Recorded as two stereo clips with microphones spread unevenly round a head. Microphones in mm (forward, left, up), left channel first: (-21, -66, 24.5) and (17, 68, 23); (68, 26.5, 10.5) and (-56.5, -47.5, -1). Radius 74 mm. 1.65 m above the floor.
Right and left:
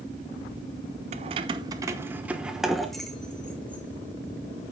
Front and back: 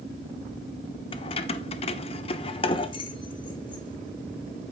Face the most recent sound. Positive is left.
turn(degrees=-30)